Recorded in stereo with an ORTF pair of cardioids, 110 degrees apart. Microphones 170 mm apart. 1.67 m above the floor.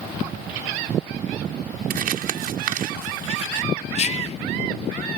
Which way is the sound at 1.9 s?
60° right.